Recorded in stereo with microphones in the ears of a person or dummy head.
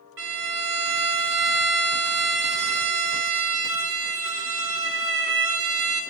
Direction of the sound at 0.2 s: 60° right (ahead or behind).